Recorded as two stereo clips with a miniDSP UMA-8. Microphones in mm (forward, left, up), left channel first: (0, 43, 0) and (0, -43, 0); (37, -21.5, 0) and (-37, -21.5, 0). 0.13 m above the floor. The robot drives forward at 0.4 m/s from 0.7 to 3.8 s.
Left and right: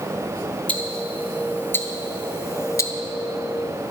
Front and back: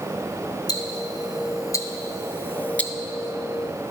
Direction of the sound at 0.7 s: 20° left.